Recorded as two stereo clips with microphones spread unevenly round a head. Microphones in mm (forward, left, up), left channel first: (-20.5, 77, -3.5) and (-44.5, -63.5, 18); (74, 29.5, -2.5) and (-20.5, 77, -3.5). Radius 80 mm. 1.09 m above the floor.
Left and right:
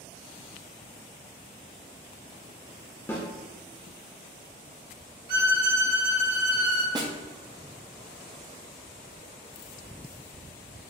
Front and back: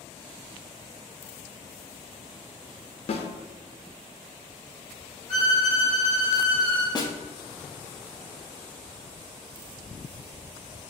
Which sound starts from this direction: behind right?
A violin, at 5.3 s.